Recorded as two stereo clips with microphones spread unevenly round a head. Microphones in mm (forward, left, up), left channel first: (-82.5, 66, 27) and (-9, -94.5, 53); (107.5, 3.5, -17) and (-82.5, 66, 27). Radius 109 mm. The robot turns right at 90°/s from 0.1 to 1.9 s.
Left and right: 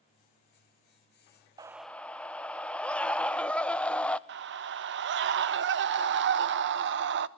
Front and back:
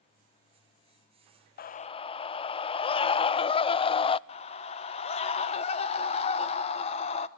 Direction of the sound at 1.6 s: 5° left.